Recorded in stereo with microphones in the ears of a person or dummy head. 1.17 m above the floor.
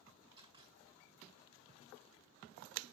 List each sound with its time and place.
0.4 s a camera shutter: 35° right (ahead or behind), 4 m